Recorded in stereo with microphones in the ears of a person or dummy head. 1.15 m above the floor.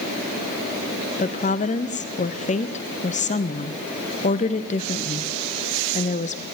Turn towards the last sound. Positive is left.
turn(degrees=30)  # may be behind; listen again after turning